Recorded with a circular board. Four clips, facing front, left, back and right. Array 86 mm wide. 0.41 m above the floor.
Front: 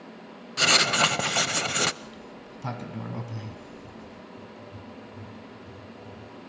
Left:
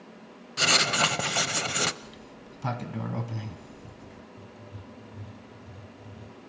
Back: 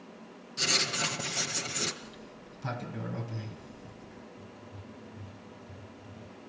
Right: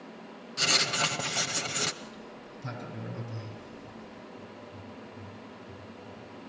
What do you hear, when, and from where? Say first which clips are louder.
0.6 s writing: left 5 dB, front 10 dB; 25° left, 0.8 m
2.0 s a sliding door: right 2 dB, front 5 dB; 65° left, 2.5 m
4.4 s writing: right 2 dB, front 5 dB; 70° left, 4 m